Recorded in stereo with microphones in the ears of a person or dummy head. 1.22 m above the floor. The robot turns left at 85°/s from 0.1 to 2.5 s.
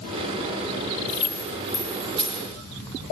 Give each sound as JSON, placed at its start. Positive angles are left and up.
{"t": 1.1, "sound": "keys jangling", "side_deg": 65, "distance_m": 3.5}